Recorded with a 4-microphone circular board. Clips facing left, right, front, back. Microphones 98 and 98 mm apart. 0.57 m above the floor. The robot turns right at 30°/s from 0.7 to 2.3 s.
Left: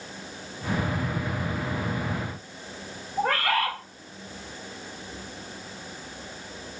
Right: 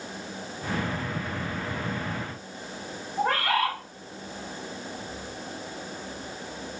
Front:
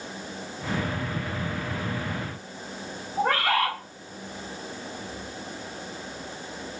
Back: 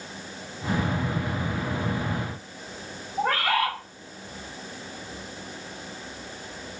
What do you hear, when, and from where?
3.2 s a bird: 55° left, 1.8 m